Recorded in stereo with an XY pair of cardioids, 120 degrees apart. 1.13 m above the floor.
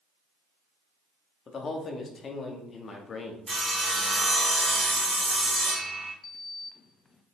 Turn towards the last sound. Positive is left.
turn(degrees=30)